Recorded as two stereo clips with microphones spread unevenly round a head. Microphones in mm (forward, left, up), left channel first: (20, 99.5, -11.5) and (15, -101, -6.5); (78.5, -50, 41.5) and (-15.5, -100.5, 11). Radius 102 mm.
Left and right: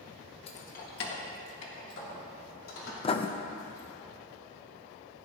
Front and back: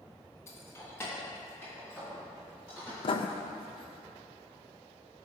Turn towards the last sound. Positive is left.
turn(degrees=30)